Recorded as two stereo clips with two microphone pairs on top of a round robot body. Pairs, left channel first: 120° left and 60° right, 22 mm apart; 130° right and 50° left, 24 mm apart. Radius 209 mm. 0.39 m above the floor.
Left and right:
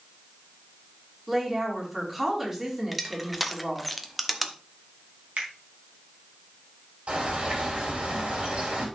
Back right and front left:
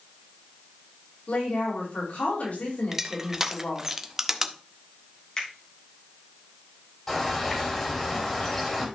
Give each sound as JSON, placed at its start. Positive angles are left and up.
{"t": 1.3, "sound": "a woman speaking", "azimuth_deg": -135, "distance_m": 4.5}
{"t": 2.9, "sound": "crushing", "azimuth_deg": 20, "distance_m": 1.3}
{"t": 5.4, "sound": "a finger snap", "azimuth_deg": -60, "distance_m": 3.5}
{"t": 7.1, "sound": "a bird", "azimuth_deg": -50, "distance_m": 4.0}